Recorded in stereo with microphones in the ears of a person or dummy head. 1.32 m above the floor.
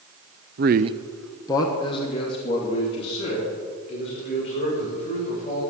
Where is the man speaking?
50° right (ahead or behind), 0.6 m; by 5.6 s 35° left (ahead or behind), 7.5 m.